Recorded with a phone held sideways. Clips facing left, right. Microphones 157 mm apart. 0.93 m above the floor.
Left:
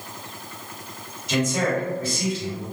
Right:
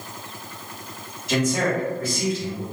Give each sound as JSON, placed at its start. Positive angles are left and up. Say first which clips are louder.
{"t": 1.3, "sound": "a man speaking", "louder": "right 1 dB", "side_deg": -50, "distance_m": 1.7}